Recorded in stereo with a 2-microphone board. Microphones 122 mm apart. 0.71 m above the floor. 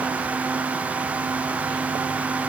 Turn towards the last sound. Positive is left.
No sound to turn to.